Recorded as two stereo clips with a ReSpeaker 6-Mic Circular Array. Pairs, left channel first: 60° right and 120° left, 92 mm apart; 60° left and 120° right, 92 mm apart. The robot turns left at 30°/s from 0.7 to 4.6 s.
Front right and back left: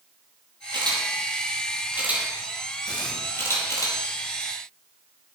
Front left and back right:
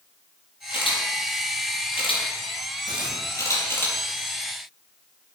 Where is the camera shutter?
85° left, 4.5 m; by 3.9 s 5° right, 4.5 m.